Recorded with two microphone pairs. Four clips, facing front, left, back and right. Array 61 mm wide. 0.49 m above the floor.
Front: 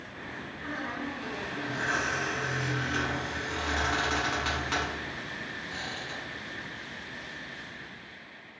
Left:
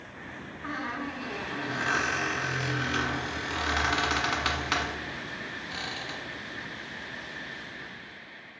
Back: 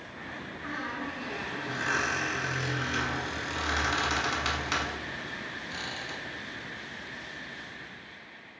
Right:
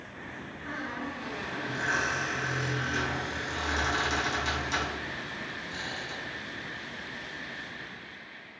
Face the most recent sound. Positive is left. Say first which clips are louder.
# left 2 dB, even
turn(degrees=95)